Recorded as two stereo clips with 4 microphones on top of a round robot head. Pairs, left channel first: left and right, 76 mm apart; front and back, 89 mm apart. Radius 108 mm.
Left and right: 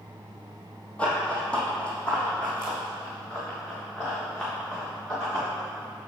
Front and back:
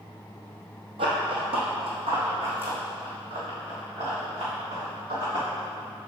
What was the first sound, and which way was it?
Running footsteps, 165° left.